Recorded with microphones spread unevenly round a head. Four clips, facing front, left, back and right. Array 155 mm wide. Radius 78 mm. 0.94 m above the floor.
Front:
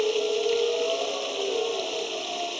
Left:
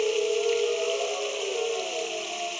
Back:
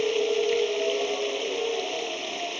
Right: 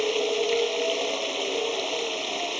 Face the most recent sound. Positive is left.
turn(degrees=-70)